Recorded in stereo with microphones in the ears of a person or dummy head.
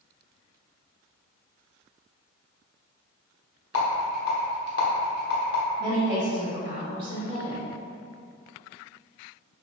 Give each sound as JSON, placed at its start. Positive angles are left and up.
{"t": 3.7, "sound": "a rattle", "side_deg": 60, "distance_m": 0.9}
{"t": 5.8, "sound": "a woman speaking", "side_deg": -30, "distance_m": 1.3}